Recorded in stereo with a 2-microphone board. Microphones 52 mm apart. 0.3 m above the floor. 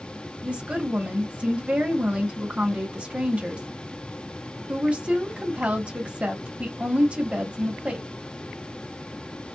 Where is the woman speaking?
20° right (ahead or behind), 1.5 m.